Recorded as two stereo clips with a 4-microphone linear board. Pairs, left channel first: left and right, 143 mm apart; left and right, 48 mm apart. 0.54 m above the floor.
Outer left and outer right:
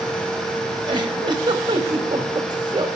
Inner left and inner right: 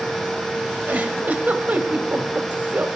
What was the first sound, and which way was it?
A giggle, 30° right (ahead or behind).